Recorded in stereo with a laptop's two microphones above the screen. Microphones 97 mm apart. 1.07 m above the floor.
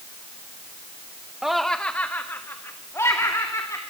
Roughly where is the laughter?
Centre.